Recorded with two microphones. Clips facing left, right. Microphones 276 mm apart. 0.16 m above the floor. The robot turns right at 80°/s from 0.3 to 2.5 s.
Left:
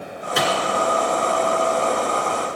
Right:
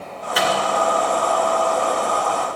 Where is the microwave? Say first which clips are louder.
Even; 50° left (ahead or behind), 2 m; by 0.5 s 45° left (ahead or behind), 2 m.